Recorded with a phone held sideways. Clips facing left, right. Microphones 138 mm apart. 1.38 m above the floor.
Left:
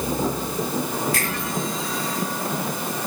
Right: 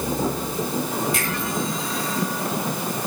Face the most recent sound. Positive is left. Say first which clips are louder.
# even
turn(degrees=-20)  # may be behind; listen again after turning